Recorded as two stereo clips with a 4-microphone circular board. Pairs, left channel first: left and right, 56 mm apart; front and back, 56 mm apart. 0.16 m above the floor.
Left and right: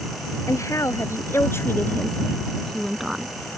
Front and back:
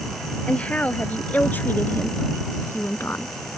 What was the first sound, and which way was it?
A woman speaking, 70° left.